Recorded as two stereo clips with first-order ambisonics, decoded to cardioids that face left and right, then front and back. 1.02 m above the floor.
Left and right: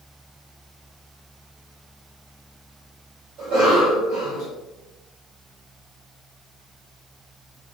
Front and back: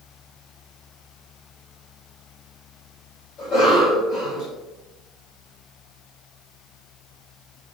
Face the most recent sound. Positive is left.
turn(degrees=-55)